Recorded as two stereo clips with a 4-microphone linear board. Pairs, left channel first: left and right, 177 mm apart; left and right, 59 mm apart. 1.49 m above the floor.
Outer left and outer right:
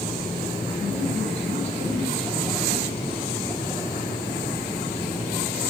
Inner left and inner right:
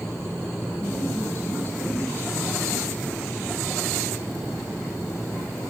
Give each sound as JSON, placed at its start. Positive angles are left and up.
{"t": 0.8, "sound": "a woman speaking", "side_deg": 40, "distance_m": 7.0}